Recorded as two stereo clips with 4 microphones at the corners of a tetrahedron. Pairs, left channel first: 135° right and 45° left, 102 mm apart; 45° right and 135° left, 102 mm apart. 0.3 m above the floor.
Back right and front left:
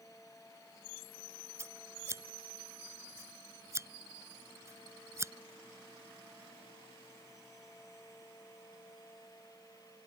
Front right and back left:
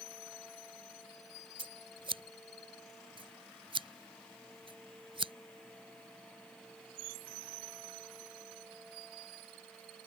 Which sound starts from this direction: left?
Scissors, at 1.6 s.